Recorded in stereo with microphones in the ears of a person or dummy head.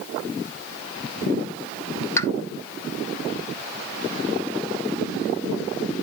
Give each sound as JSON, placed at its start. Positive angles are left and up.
{"t": 2.2, "sound": "a pop", "side_deg": 15, "distance_m": 0.7}